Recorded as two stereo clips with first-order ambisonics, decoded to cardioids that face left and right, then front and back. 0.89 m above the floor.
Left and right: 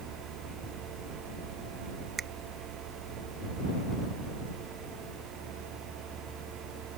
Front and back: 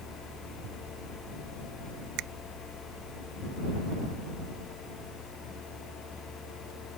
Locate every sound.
2.2 s a finger snap: 160° right